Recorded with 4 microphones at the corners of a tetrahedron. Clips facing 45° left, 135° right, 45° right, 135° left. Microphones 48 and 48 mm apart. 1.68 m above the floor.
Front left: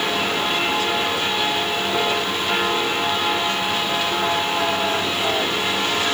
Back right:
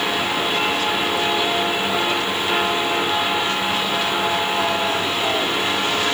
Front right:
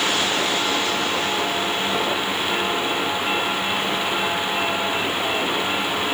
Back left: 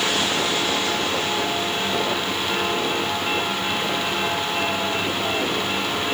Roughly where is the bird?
No bird in this recording.